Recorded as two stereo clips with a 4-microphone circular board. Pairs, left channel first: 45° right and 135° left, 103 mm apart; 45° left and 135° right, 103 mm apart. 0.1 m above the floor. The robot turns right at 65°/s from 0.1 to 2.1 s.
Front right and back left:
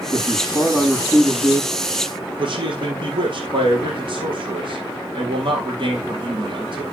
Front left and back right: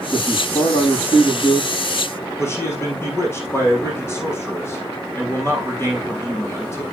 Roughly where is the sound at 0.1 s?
Ahead.